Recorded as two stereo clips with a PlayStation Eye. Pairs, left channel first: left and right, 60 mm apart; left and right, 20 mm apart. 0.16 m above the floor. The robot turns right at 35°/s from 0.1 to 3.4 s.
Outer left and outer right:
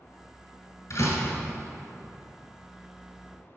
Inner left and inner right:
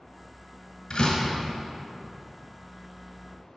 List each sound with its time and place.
0.9 s a door slam: 55° left (ahead or behind), 1.5 m; by 1.4 s 45° left (ahead or behind), 1.5 m